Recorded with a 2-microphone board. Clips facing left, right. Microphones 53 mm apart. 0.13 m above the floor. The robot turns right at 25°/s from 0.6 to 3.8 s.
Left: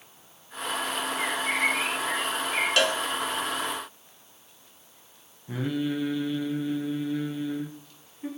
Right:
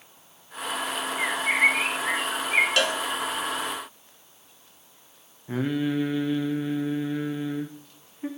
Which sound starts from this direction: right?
Singing, at 5.5 s.